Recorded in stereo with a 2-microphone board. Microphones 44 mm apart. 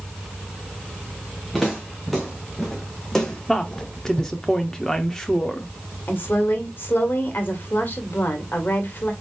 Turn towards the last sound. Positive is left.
turn(degrees=50)  # may be behind; listen again after turning